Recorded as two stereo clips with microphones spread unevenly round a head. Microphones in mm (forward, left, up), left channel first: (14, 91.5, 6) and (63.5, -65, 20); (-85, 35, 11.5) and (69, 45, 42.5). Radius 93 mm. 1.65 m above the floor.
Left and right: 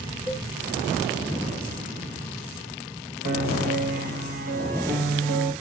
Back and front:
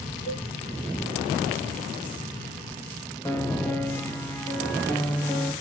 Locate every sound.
0.3 s a cowbell: 160° right, 5 m
3.2 s a piano: 90° right, 1.7 m